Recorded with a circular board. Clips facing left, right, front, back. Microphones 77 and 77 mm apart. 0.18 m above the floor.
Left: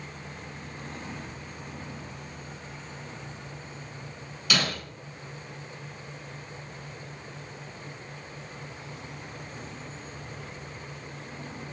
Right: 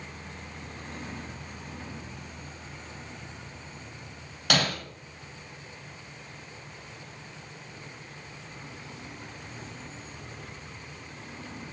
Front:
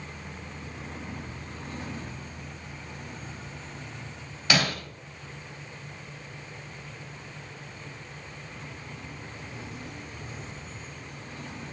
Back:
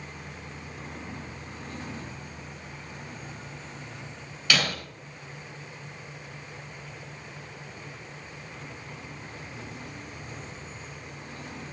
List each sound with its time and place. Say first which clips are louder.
4.5 s breaking glass: right 2 dB, front 1 dB; 70° right, 2.5 m